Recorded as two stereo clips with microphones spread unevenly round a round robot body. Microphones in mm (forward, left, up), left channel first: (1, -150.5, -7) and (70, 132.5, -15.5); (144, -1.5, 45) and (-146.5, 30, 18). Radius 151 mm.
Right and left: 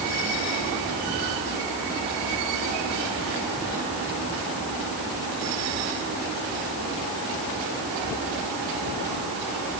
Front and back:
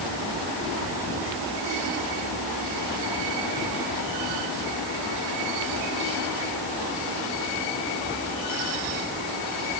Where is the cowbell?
I don't hear a cowbell.